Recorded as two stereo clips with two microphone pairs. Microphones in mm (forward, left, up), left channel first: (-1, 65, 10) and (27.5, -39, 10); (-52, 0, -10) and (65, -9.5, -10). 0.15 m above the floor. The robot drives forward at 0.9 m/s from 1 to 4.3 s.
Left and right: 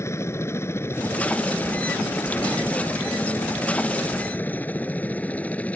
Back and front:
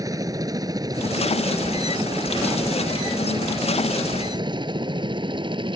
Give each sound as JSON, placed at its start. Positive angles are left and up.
{"t": 0.0, "sound": "a helicopter", "azimuth_deg": 45}